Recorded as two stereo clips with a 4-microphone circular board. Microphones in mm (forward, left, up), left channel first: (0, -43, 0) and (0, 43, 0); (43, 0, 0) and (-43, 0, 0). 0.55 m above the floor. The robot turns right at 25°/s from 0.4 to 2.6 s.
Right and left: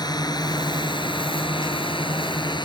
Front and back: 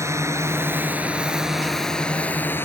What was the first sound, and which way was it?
A drone, 125° right.